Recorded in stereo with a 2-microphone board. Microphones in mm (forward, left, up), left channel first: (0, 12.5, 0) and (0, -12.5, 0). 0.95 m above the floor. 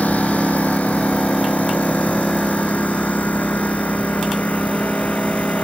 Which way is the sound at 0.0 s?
85° left.